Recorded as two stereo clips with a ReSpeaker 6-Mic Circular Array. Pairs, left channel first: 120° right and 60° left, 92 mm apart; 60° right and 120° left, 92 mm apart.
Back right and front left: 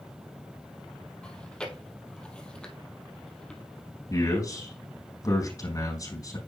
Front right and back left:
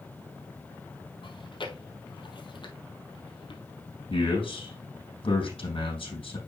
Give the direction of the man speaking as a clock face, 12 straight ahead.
2 o'clock.